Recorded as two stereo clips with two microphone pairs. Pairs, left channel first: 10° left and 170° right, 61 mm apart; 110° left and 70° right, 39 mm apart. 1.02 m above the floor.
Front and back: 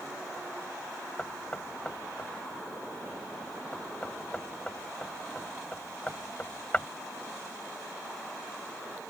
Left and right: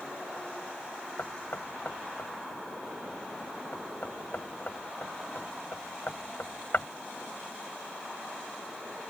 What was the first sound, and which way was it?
Knocking, 80° left.